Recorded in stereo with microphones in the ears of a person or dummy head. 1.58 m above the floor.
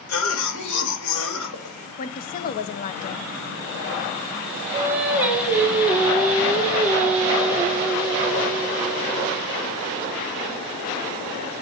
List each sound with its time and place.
0.1 s a cough: 90° left, 2.5 m
2.0 s a woman speaking: 50° left (ahead or behind), 0.7 m
4.7 s singing: 10° right (ahead or behind), 1.7 m